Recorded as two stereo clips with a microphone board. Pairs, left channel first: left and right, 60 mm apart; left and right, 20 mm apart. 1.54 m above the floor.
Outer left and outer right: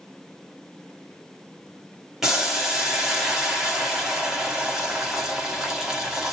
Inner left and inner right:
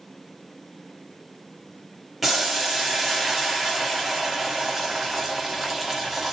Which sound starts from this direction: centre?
Boiling, at 2.2 s.